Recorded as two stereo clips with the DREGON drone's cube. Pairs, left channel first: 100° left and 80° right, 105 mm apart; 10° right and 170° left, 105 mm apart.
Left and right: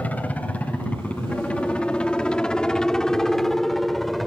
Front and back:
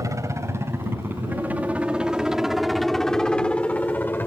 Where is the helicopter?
160° left; by 4.3 s 15° left.